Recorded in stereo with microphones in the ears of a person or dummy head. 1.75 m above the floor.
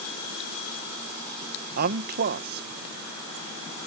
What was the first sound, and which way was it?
A man speaking, 50° right (ahead or behind).